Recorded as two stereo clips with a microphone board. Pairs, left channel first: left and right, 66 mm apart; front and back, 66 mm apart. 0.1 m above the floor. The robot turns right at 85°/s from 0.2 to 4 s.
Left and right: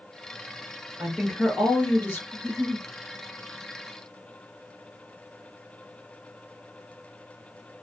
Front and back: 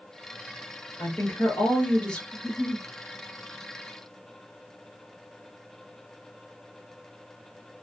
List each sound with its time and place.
1.0 s a woman speaking: 30° right, 1.6 m; by 2.2 s 75° left, 1.6 m
2.3 s a giggle: 40° left, 1.6 m; by 2.9 s 85° left, 1.6 m